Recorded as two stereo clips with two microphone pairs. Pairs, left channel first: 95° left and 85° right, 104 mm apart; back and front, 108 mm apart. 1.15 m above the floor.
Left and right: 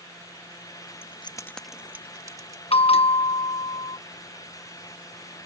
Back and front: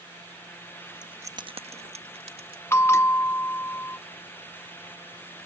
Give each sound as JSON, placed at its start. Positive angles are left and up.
{"t": 1.0, "sound": "keys jangling", "azimuth_deg": 80}
{"t": 2.7, "sound": "a bell", "azimuth_deg": 110}